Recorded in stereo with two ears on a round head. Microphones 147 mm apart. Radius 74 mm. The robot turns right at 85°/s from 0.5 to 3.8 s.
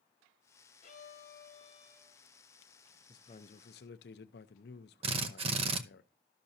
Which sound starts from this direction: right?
A drill, at 5.0 s.